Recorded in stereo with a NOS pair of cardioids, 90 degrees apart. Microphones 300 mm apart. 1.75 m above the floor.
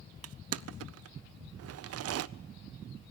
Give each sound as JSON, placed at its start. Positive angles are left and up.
{"t": 0.2, "sound": "crushing", "azimuth_deg": -55, "distance_m": 0.7}